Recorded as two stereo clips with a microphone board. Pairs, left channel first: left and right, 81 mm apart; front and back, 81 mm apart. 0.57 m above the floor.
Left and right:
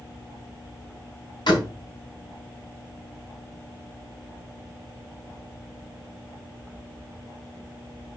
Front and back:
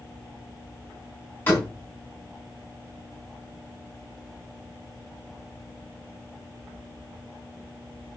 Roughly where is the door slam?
Ahead left.